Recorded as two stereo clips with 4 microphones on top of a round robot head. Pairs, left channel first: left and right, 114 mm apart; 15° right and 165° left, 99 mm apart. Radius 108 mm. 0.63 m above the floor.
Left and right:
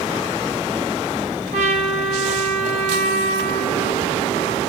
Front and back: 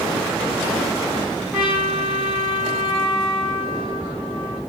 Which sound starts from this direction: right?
A trumpet, at 1.5 s.